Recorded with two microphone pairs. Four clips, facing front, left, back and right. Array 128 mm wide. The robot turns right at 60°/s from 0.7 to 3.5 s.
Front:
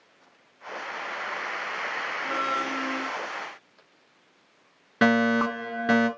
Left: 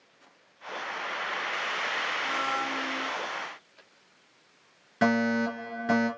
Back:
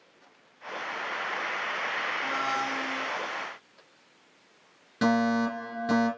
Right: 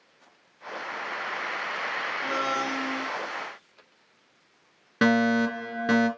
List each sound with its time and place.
2.2 s a blender: 70° right, 2 m; by 3.1 s 15° right, 2 m
5.0 s a fire alarm: 35° right, 4 m